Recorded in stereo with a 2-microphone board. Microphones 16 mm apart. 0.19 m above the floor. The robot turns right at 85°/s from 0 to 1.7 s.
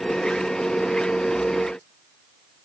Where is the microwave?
I don't hear a microwave.